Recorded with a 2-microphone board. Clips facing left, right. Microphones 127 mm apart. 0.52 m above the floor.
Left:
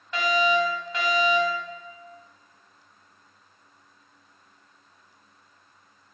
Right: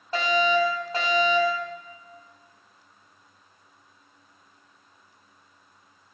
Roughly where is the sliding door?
No sliding door in this recording.